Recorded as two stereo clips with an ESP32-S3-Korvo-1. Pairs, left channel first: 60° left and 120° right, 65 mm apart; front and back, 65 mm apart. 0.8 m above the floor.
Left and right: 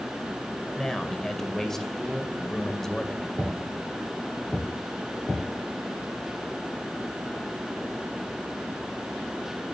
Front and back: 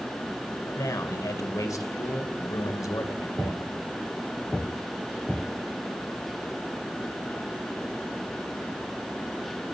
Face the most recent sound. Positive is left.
turn(degrees=-25)